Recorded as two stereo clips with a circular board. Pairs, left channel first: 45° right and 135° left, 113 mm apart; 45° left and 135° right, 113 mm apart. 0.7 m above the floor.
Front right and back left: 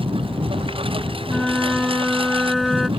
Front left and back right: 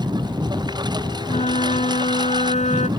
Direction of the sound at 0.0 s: 175° left.